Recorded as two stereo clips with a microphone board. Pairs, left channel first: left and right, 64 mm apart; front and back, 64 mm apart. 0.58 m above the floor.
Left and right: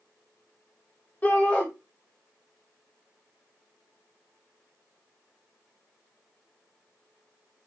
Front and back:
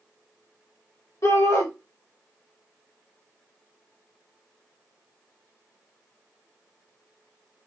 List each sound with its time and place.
1.2 s a shout: 25° left, 1.7 m